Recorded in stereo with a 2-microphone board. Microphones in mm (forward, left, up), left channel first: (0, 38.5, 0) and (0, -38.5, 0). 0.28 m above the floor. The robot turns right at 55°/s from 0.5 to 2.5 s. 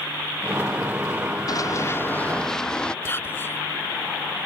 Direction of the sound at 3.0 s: 30° left (ahead or behind).